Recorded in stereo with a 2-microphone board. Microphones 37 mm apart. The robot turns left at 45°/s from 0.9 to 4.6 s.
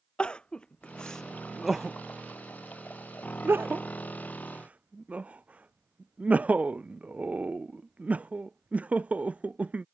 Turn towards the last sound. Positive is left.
turn(degrees=-40)  # may be behind; listen again after turning